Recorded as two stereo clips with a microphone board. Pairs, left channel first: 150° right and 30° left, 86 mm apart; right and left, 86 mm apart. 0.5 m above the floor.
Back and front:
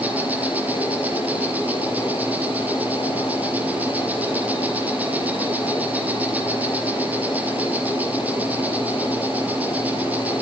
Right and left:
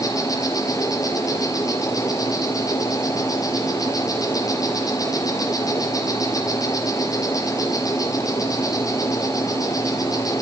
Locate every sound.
0.0 s an insect: 40° right, 3.5 m